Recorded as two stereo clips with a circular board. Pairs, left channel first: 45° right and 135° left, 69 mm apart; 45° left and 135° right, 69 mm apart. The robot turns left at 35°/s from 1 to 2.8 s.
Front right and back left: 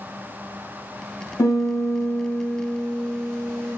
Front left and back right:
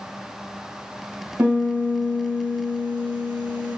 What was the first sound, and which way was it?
A piano, 75° right.